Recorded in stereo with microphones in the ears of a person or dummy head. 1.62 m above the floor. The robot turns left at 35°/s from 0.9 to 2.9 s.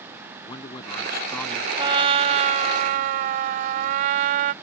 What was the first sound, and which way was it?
A man speaking, 40° left (ahead or behind).